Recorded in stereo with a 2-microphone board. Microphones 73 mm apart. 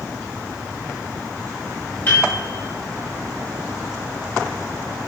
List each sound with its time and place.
2.1 s a piano: 30° left (ahead or behind), 2 m